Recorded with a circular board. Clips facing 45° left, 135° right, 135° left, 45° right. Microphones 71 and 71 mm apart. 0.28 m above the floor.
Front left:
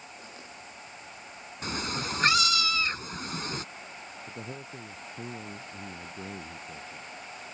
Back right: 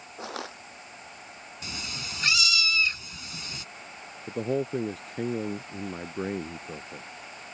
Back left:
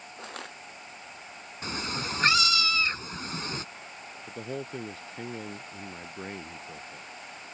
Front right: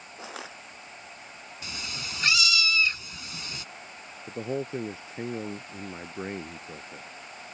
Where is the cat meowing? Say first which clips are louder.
Front left 7 dB, back left 6 dB; 85° left.